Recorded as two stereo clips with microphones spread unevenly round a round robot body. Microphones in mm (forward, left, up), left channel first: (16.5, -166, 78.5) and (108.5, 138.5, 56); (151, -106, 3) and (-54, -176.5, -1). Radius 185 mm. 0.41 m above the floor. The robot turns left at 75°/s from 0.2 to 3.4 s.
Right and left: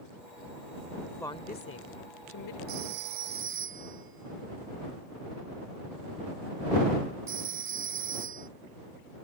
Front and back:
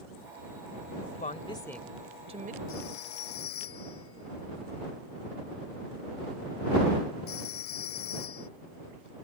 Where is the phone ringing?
75° left; by 8.5 s 25° left.